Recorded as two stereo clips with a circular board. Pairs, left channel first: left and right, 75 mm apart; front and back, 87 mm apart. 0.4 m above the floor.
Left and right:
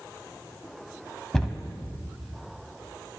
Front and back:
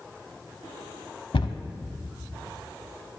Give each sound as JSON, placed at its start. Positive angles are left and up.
{"t": 1.3, "sound": "a cupboard door", "azimuth_deg": 5, "distance_m": 0.7}